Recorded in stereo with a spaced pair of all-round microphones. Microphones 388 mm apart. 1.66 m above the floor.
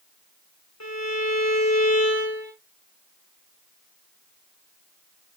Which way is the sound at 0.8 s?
45° left (ahead or behind).